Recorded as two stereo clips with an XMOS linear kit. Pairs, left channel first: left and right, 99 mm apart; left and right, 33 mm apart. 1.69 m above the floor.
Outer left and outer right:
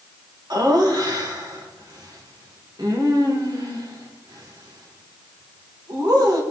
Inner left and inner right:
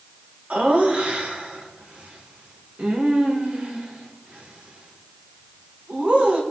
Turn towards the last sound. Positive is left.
turn(degrees=-40)  # may be behind; listen again after turning